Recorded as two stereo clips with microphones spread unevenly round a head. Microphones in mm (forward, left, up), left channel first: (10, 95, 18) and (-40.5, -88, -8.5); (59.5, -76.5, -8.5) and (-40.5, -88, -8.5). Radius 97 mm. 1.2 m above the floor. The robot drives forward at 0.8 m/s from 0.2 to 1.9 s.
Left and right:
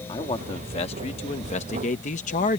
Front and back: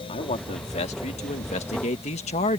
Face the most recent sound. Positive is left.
turn(degrees=20)